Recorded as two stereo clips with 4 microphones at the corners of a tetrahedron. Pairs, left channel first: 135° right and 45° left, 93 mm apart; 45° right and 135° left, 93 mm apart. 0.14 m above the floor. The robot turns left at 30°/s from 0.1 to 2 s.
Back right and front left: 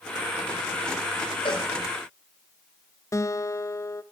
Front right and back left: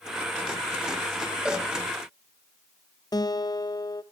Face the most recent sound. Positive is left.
turn(degrees=-85)